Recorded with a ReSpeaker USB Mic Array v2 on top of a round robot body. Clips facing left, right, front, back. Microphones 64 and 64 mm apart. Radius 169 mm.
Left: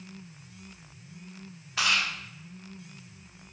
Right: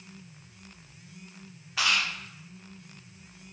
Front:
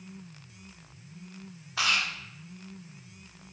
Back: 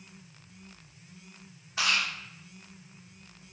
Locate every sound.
1.8 s chewing: 5° right, 0.7 m